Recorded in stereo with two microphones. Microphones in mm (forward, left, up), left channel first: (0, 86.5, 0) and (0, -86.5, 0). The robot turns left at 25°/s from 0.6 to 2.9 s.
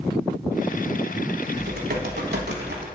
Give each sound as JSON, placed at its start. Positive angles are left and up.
{"t": 1.6, "sound": "typing on a keyboard", "azimuth_deg": -70, "distance_m": 1.2}